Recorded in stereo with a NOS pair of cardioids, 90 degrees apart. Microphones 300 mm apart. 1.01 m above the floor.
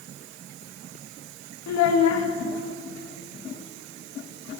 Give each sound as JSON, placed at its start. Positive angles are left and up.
{"t": 1.7, "sound": "a child speaking", "azimuth_deg": 65, "distance_m": 1.2}